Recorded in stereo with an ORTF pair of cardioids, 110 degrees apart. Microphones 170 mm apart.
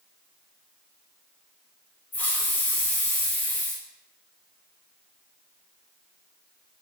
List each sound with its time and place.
2.1 s a hiss: 10° left, 0.5 m